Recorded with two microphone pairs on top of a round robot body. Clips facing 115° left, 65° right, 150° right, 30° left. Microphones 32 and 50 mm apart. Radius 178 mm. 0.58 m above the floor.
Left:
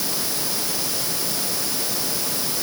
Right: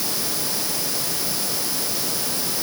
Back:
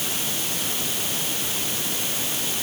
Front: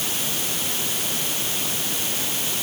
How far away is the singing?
I don't hear singing.